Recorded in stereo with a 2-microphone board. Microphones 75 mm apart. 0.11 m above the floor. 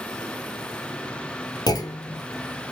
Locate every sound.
1.7 s a clunk: 60° left (ahead or behind), 0.6 m